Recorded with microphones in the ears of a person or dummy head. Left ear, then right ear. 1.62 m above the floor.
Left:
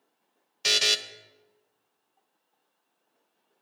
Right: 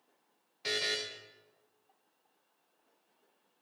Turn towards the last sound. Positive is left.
turn(degrees=45)  # may be behind; listen again after turning